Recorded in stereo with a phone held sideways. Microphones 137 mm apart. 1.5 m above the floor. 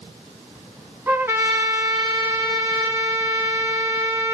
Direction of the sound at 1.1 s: 20° right (ahead or behind).